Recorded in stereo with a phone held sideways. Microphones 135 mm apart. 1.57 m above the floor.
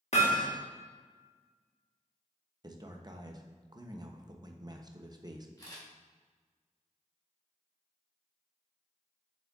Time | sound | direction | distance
0.1 | hammering | 55° left (ahead or behind) | 1.4 m
2.6 | a man speaking | 30° right (ahead or behind) | 0.7 m
5.6 | a camera shutter | 30° left (ahead or behind) | 2 m